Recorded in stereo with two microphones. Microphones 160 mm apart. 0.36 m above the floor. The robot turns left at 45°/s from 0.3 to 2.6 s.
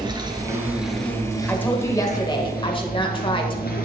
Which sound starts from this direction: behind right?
An insect, at 0.0 s.